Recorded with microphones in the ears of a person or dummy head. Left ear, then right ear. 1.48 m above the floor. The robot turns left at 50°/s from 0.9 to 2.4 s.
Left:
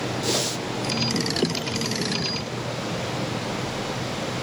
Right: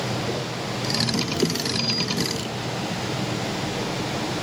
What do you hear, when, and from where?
0.2 s a whoosh: 50° left (ahead or behind), 0.5 m